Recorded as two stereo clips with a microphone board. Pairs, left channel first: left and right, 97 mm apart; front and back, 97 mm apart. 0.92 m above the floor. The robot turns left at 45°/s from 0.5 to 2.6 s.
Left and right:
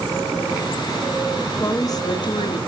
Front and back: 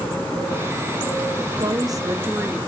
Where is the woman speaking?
150° left, 1.6 m; by 2.6 s 105° left, 1.6 m.